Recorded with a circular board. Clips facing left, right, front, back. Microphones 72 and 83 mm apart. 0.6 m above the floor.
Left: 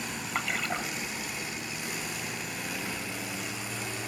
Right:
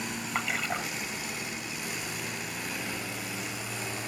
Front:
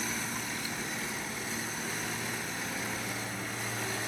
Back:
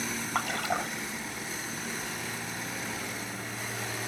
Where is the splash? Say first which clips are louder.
Even, back 7 dB; straight behind.